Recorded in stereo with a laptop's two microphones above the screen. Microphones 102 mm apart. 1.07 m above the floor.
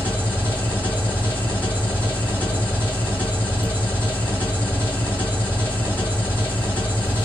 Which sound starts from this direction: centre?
An engine running, at 0.0 s.